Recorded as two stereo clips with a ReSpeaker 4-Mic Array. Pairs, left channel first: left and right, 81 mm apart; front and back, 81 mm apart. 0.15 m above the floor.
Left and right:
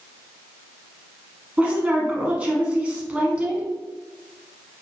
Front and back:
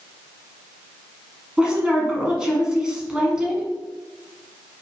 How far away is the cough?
No cough in this recording.